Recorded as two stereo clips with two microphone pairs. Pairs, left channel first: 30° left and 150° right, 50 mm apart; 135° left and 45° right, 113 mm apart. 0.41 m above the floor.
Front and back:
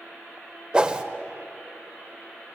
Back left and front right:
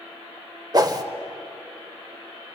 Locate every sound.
0.7 s a whoosh: 85° right, 0.9 m